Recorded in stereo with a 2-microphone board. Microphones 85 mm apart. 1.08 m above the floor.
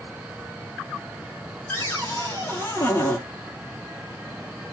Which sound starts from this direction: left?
A cupboard door, at 1.7 s.